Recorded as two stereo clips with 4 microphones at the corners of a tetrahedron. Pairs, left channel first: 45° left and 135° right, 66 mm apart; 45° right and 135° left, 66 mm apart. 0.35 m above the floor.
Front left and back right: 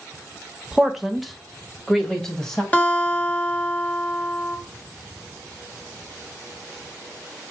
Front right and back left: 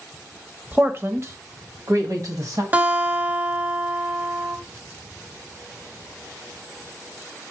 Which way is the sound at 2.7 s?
90° left.